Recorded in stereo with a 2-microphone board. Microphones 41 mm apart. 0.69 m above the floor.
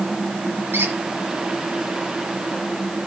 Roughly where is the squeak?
Right.